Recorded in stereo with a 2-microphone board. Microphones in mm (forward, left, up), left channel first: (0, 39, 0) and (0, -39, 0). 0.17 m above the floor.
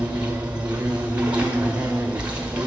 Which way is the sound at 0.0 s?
15° right (ahead or behind).